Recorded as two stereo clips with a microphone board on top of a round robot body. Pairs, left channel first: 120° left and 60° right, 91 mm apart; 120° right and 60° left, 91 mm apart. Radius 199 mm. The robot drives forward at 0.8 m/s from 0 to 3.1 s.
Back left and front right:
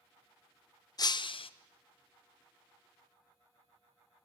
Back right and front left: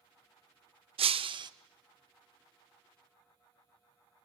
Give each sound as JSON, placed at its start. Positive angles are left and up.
{"t": 1.0, "sound": "breaking glass", "azimuth_deg": 70, "distance_m": 0.8}